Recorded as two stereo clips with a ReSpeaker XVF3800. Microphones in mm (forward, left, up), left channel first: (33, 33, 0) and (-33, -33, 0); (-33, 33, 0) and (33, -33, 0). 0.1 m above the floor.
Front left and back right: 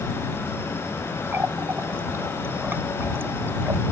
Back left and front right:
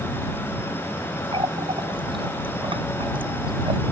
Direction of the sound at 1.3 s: 70° right.